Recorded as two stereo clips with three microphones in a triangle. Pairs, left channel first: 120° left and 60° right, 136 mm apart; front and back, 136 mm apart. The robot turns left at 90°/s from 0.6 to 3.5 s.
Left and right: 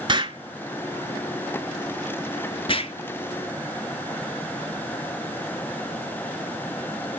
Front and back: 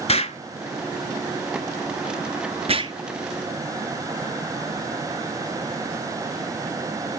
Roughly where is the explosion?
Ahead.